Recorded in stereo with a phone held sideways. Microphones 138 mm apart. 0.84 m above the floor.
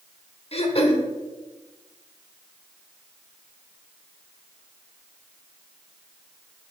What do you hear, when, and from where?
0.5 s throat clearing: 45° left (ahead or behind), 0.8 m